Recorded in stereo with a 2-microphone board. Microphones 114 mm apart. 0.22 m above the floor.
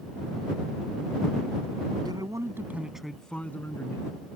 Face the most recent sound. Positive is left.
turn(degrees=25)  # may be behind; listen again after turning